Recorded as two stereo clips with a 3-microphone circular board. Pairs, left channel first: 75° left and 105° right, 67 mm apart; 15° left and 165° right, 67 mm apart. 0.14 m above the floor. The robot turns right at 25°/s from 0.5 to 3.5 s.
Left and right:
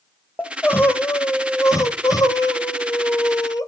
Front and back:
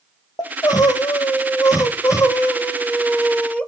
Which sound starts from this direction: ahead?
Crying, at 0.4 s.